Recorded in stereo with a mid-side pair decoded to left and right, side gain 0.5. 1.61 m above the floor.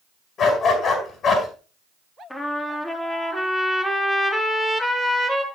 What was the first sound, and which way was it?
A dog barking, 55° left.